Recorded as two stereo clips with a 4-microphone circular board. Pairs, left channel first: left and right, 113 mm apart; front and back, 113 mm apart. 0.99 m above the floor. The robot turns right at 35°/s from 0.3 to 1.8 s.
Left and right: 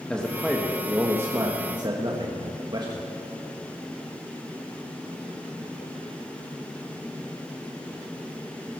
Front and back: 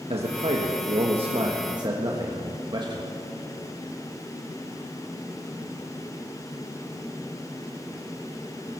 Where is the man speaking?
170° left, 1.3 m; by 3.2 s 135° right, 1.3 m.